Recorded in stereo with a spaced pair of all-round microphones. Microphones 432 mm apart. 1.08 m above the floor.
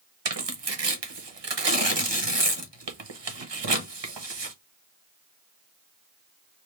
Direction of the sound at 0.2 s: 70° right (ahead or behind).